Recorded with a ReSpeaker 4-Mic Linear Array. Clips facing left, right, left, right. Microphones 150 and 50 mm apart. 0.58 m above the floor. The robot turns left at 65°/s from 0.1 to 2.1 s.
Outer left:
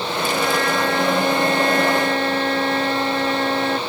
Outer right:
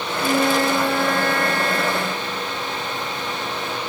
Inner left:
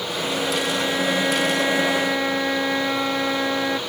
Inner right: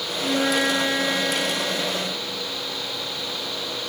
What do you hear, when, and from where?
0.2 s a flute: 125° right; by 3.8 s 110° left